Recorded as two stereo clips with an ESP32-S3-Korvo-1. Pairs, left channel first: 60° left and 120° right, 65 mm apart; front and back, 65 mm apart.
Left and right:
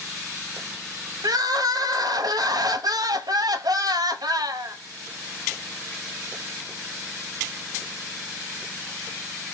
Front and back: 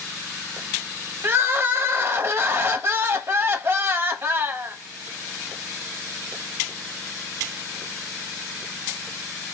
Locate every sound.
1.2 s crying: 125° right, 0.7 m